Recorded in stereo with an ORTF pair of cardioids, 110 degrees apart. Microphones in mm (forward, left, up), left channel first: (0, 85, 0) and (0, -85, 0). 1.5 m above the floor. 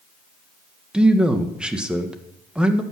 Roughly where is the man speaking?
Ahead.